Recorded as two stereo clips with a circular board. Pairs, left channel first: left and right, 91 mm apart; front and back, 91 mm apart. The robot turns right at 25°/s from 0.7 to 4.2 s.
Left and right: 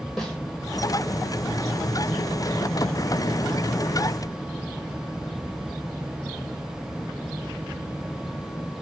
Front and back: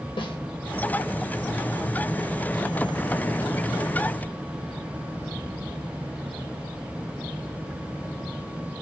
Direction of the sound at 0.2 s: 5° left.